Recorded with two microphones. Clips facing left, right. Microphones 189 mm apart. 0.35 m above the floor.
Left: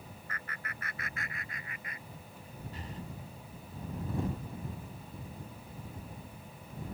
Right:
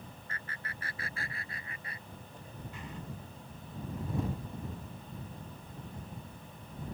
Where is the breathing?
35° left (ahead or behind).